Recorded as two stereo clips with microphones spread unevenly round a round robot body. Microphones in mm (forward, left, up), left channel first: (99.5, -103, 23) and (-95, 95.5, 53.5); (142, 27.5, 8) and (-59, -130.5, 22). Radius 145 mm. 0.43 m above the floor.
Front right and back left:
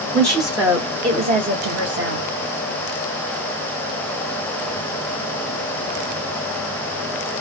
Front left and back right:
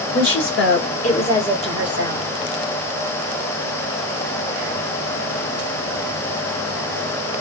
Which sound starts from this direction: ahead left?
A woman speaking, at 0.1 s.